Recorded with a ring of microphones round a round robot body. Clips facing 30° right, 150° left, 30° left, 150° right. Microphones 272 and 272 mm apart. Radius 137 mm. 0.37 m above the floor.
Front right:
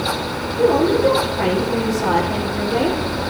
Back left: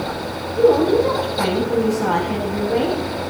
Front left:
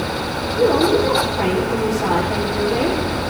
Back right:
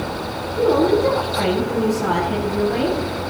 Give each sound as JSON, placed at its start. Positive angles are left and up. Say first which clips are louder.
{"t": 0.6, "sound": "a woman speaking", "louder": "back left 2 dB, even", "azimuth_deg": 180, "distance_m": 8.5}